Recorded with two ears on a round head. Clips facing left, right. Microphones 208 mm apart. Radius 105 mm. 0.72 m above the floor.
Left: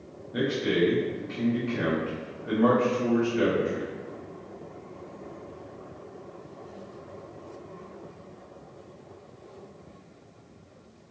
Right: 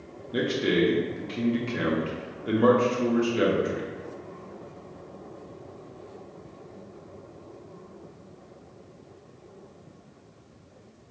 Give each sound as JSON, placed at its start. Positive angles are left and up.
{"t": 0.3, "sound": "a man speaking", "side_deg": -45, "distance_m": 1.1}